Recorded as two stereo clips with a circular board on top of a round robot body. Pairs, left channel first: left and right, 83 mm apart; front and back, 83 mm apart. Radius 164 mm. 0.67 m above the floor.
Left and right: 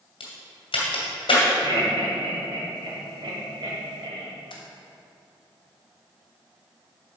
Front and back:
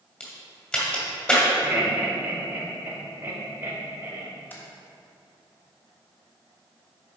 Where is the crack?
75° left, 2 m.